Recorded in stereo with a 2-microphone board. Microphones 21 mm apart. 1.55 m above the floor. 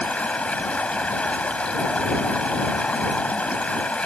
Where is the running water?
80° left.